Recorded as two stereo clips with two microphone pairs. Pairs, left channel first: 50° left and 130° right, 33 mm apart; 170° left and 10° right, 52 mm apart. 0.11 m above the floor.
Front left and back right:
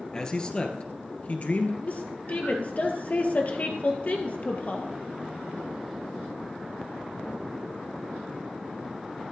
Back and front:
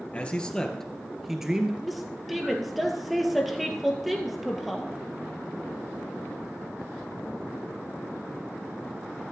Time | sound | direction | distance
0.1 | a man speaking | 110° left | 1.7 m
1.8 | a woman speaking | 75° left | 2 m